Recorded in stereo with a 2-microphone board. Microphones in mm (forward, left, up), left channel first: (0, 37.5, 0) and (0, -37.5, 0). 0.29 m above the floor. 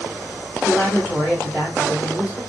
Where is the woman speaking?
20° right (ahead or behind), 1.8 m.